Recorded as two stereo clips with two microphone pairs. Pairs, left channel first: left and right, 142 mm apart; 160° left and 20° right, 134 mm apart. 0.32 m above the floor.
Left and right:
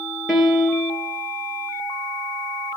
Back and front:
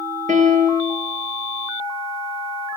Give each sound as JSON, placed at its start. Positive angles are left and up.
{"t": 0.3, "sound": "a piano", "azimuth_deg": 0, "distance_m": 4.0}